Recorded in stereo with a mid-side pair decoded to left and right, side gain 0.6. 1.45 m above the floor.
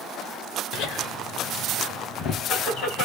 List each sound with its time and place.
0.7 s laughter: 70° left, 1.2 m